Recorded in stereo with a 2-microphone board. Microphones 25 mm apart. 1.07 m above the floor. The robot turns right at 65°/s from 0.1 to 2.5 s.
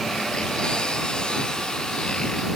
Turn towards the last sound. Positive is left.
No sound to turn to.